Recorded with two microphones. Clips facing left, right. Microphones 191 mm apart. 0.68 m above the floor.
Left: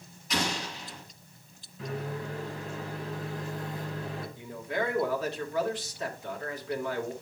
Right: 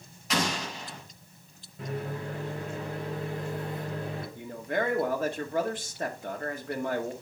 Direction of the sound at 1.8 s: 60° right (ahead or behind).